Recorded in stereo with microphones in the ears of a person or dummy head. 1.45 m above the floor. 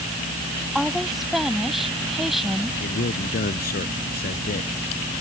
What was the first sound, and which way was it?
A woman speaking, centre (ahead or behind).